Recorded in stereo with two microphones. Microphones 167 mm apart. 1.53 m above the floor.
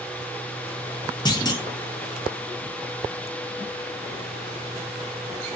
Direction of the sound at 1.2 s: 25° left (ahead or behind).